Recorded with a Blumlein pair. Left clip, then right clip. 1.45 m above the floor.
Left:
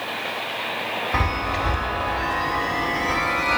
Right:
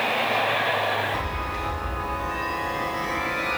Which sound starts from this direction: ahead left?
A chime, at 1.1 s.